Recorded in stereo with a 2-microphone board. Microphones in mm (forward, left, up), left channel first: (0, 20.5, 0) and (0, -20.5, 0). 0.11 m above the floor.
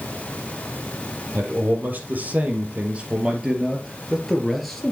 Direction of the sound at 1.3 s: 55° right (ahead or behind).